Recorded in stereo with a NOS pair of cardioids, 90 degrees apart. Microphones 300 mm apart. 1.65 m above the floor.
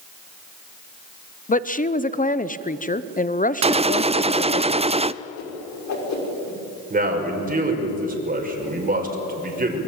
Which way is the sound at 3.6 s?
20° right.